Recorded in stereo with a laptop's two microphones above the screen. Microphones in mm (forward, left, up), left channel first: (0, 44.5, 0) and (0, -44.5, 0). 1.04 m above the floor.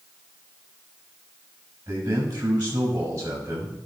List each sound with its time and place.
1.9 s a man speaking: 50° right (ahead or behind), 6.5 m